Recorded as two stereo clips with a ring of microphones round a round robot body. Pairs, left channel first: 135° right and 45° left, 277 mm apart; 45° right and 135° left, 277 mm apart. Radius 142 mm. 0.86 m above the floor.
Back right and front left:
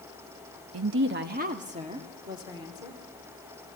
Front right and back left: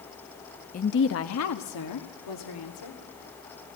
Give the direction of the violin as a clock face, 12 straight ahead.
I don't hear a violin.